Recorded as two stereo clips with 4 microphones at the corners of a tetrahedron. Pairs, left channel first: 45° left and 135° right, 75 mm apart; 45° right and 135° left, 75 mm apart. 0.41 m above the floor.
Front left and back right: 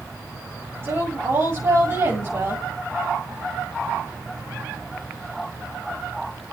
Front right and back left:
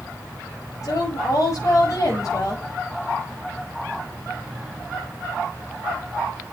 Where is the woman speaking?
85° right, 9 m.